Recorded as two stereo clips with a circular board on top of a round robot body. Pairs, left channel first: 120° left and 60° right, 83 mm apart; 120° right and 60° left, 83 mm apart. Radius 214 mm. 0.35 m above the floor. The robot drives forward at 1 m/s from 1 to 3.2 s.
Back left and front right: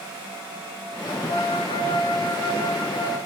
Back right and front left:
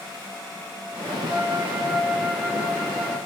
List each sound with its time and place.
1.3 s a flute: 110° left, 1.3 m; by 3.2 s 155° left, 2.5 m